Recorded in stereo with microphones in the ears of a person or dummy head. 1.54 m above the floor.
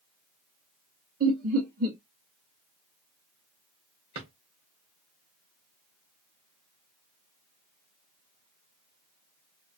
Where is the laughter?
50° right (ahead or behind), 0.8 m.